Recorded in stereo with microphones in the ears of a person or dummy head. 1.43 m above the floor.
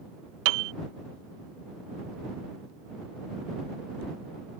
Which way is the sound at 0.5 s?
70° right (ahead or behind).